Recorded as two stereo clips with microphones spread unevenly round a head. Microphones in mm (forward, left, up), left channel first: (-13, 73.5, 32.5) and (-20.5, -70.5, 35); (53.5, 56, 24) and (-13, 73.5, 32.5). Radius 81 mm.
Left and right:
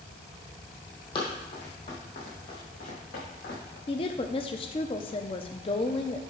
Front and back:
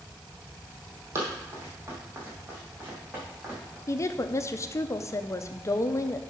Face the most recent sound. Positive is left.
turn(degrees=30)